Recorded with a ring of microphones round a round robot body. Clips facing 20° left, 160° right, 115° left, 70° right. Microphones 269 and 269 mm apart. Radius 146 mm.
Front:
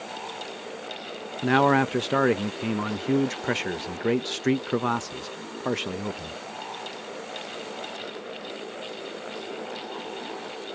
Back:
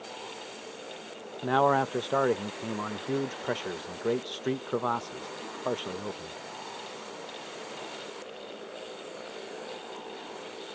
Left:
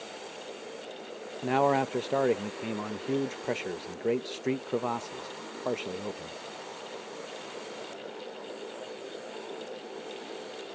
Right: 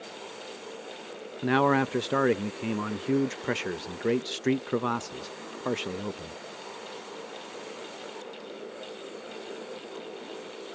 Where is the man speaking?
10° right.